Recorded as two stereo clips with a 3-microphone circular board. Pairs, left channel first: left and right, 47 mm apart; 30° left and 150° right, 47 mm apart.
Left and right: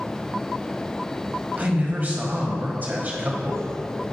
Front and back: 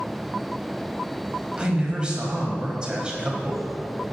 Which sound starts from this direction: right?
A man speaking, at 1.6 s.